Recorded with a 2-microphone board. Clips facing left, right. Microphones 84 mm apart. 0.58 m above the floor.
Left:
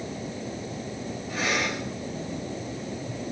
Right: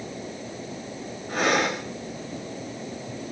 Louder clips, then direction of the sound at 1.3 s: Right 5 dB; 50° right (ahead or behind).